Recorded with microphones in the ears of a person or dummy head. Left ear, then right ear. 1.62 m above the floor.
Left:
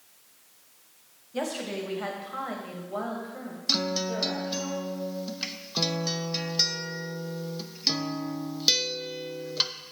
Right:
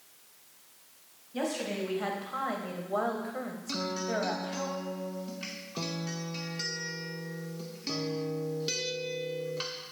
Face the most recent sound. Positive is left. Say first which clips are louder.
# left 6 dB
turn(degrees=30)  # may be behind; listen again after turning